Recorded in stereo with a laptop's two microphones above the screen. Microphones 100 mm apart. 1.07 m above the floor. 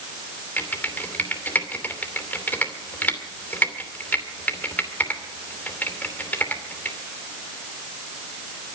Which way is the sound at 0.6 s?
20° left (ahead or behind).